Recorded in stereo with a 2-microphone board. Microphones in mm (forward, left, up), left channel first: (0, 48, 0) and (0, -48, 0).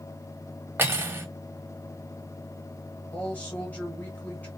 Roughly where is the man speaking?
Centre.